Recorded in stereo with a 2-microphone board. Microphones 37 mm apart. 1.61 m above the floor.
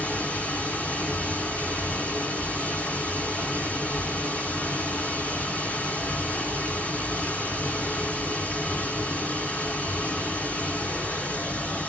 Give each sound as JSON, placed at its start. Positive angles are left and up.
{"t": 0.0, "sound": "running water", "side_deg": 40, "distance_m": 2.5}